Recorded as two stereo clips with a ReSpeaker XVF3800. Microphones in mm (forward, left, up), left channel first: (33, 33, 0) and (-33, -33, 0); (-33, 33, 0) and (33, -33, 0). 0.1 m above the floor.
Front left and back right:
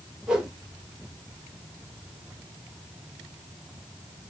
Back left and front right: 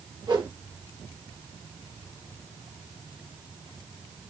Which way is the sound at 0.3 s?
50° right.